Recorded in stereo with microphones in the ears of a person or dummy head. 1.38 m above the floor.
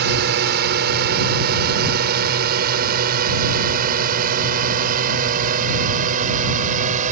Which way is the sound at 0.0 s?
60° right (ahead or behind).